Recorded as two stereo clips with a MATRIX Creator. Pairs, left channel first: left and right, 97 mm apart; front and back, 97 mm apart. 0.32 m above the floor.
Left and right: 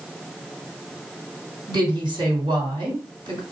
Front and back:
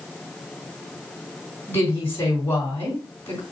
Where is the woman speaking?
65° right, 3.5 m.